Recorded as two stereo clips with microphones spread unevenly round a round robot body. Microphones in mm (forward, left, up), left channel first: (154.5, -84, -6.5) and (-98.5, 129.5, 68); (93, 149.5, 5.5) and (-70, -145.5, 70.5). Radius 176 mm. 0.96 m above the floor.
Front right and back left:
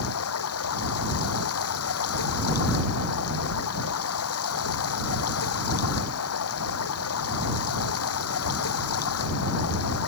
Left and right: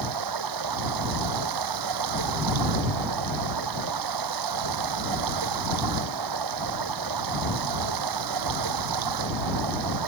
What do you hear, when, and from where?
0.0 s running water: 90° right